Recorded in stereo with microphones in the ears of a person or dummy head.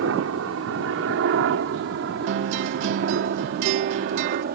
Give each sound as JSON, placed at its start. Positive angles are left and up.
{"t": 0.0, "sound": "a helicopter", "side_deg": -70}
{"t": 2.3, "sound": "a guitar", "side_deg": -45}